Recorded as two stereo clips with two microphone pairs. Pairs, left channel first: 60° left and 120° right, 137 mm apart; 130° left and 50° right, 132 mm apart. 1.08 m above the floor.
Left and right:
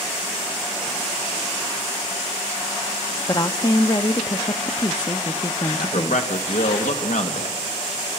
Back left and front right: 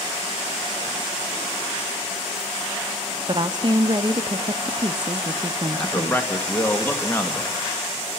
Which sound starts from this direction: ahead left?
A man speaking, at 5.7 s.